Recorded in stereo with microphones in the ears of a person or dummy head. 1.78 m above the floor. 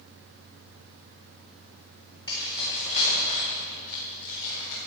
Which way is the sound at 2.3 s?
25° left (ahead or behind).